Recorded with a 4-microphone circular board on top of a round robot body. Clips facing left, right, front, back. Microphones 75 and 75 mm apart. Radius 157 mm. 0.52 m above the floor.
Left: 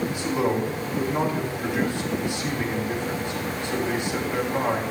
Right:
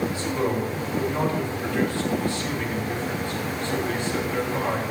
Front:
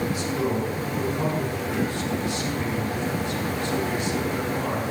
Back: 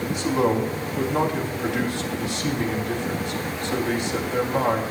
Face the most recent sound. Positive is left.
turn(degrees=160)